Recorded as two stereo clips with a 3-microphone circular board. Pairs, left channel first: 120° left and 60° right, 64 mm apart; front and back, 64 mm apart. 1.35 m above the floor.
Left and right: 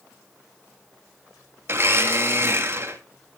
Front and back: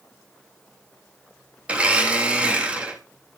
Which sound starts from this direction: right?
A blender, at 1.7 s.